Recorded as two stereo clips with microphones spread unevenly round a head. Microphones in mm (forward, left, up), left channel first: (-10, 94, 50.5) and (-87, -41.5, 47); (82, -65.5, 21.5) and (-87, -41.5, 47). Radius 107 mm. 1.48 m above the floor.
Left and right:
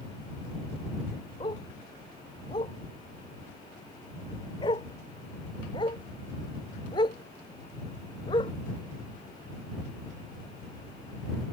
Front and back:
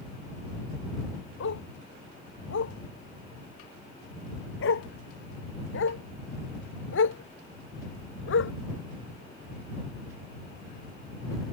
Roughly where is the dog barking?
Ahead.